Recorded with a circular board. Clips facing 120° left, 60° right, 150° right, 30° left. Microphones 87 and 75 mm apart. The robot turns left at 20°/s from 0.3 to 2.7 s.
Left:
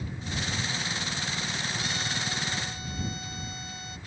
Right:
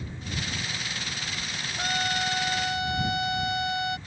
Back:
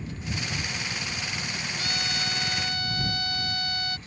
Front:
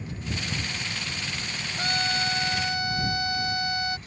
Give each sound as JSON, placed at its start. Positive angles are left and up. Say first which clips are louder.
{"t": 1.8, "sound": "a trumpet", "louder": "right 5 dB, front 7 dB", "azimuth_deg": -20}